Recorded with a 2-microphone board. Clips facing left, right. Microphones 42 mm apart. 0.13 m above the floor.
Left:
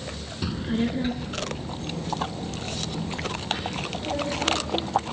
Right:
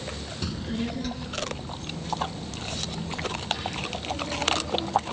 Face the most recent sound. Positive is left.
turn(degrees=40)  # may be behind; listen again after turning